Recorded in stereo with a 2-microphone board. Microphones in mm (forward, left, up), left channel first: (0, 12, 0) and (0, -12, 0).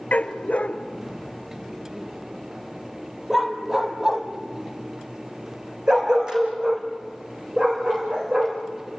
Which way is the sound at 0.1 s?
90° left.